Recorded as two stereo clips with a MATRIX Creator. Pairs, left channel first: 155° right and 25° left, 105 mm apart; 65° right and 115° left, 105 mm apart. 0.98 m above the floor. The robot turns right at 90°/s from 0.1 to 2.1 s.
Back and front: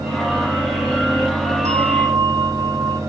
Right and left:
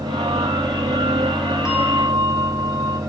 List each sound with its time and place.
1.6 s a bell: 30° left, 1.6 m; by 3.0 s 70° left, 1.6 m